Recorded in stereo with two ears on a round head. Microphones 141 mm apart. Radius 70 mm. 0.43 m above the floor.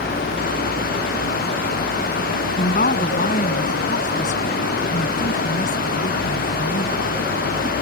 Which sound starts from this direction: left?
A woman speaking, at 2.6 s.